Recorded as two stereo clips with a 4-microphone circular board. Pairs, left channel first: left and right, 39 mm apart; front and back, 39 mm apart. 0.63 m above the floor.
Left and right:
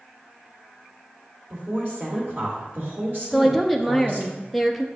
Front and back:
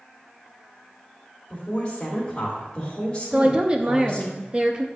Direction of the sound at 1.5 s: 60° right.